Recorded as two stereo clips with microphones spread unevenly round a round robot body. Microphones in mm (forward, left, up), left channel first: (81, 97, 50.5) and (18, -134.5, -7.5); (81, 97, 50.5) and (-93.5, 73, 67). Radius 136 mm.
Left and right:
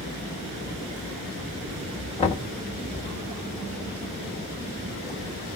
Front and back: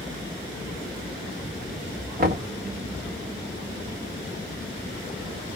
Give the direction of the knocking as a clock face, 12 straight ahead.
7 o'clock.